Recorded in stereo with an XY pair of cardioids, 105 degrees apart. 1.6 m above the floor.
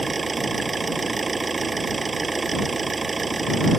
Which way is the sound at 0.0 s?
25° right.